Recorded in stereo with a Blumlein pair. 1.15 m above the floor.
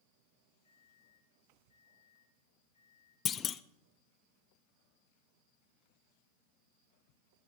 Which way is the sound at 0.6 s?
70° left.